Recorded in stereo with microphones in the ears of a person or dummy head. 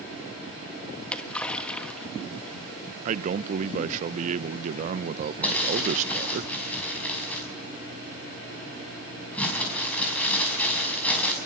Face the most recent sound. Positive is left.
turn(degrees=10)  # may be behind; listen again after turning